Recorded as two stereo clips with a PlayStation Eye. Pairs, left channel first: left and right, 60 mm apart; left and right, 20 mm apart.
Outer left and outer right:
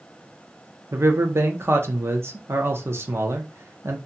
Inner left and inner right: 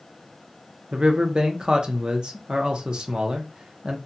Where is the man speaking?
45° right (ahead or behind), 0.6 m.